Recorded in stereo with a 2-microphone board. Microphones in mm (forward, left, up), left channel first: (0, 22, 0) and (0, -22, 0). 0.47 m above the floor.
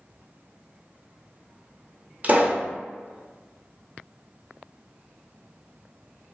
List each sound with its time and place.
2.2 s a pop: 35° right (ahead or behind), 0.6 m